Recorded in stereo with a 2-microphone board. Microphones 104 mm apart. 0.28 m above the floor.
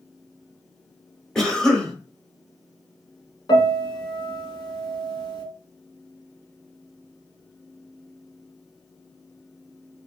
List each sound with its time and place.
1.4 s a cough: 5° left (ahead or behind), 1.0 m
3.5 s a piano: 45° left (ahead or behind), 1.4 m